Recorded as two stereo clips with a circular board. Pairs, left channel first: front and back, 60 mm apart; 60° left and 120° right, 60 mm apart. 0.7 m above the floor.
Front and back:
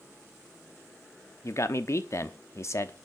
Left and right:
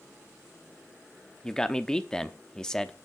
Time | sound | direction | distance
1.4 | a man speaking | 20° right | 0.9 m